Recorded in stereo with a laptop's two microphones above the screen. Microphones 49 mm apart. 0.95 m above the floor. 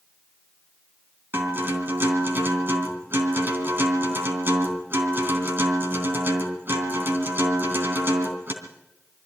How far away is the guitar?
About 3 m.